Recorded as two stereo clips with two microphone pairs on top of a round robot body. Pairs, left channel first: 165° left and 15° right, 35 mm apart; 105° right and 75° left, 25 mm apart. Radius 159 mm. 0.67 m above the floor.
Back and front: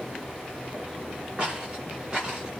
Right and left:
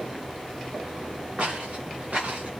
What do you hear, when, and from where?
1.4 s footsteps: 50° left, 9 m; by 2.5 s 55° left, 8.5 m